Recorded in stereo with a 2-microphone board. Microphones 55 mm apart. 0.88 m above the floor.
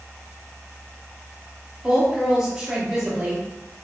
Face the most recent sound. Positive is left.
turn(degrees=-10)  # may be behind; listen again after turning